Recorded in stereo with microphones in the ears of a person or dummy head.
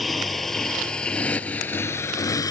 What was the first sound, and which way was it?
A motorcycle, 5° right (ahead or behind).